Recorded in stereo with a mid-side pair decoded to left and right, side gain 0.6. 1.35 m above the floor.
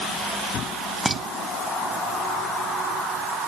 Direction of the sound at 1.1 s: 5° right.